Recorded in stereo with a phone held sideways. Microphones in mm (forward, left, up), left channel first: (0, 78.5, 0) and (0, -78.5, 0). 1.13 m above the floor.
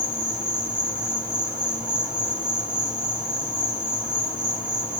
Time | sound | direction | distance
0.0 | an insect | 5° right (ahead or behind) | 4 m